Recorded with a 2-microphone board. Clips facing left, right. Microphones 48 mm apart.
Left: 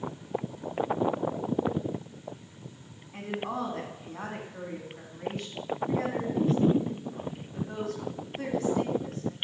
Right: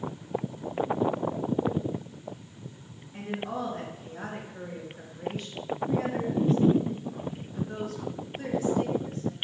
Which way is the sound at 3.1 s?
65° left (ahead or behind).